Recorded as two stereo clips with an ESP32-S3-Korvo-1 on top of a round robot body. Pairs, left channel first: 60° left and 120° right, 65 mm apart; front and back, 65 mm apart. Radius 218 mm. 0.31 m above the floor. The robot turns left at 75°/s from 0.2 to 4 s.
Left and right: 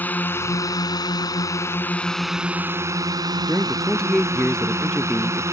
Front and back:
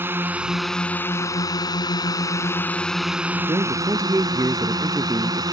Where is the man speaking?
Straight behind; by 5.4 s 140° left.